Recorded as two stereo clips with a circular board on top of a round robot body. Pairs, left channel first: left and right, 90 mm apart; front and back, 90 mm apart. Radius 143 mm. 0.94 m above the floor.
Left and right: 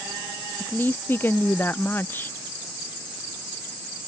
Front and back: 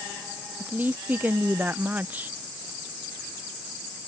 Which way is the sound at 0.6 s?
130° left.